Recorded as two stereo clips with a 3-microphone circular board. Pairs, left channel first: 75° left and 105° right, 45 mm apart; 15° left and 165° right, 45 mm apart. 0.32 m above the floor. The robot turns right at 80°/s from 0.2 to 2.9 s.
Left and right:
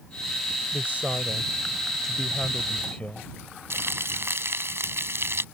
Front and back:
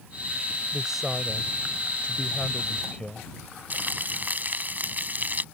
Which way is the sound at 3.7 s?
120° right.